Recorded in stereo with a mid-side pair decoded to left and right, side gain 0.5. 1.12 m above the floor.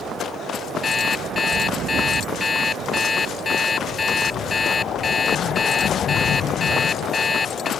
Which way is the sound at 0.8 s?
30° left.